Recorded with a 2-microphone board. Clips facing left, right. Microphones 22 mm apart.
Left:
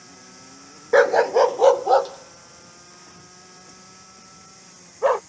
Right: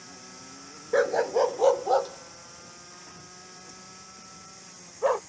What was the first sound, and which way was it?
A dog barking, 45° left (ahead or behind).